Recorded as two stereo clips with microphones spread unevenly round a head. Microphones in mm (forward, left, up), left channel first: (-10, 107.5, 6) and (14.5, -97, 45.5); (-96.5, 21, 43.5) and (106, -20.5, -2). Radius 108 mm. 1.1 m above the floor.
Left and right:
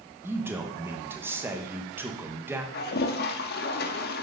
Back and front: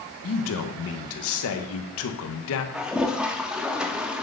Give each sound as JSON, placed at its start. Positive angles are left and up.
{"t": 0.2, "sound": "a man speaking", "azimuth_deg": -165, "distance_m": 1.0}
{"t": 2.7, "sound": "a toilet flushing", "azimuth_deg": 95, "distance_m": 0.6}